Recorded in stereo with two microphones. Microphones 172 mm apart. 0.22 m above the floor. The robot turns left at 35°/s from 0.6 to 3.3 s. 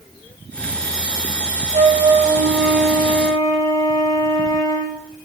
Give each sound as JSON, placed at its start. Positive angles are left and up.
{"t": 1.7, "sound": "a flute", "azimuth_deg": -140, "distance_m": 7.0}